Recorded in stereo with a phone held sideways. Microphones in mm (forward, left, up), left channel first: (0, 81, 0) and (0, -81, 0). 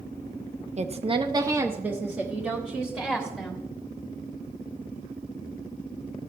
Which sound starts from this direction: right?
A woman speaking, at 0.8 s.